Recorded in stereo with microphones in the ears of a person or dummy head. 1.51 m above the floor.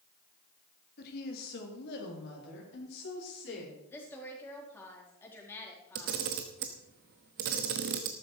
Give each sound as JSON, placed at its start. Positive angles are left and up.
{"t": 1.0, "sound": "a woman speaking", "side_deg": 50, "distance_m": 2.5}
{"t": 3.9, "sound": "a woman speaking", "side_deg": 15, "distance_m": 4.0}
{"t": 6.0, "sound": "a camera shutter", "side_deg": -40, "distance_m": 1.1}